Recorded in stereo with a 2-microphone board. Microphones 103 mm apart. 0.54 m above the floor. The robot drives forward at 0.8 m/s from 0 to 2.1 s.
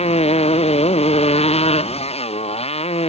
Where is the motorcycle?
80° left.